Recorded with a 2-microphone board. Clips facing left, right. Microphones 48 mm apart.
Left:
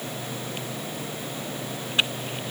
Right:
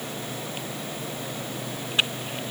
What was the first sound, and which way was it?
Only background noise.